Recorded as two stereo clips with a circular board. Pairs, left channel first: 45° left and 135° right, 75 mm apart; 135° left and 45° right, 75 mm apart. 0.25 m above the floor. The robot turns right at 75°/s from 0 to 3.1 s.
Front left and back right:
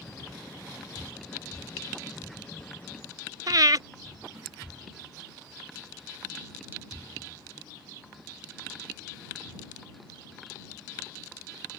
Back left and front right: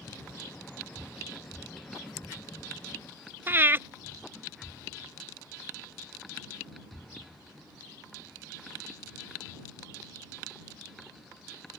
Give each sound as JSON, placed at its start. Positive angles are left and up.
{"t": 3.5, "sound": "breathing", "azimuth_deg": -105}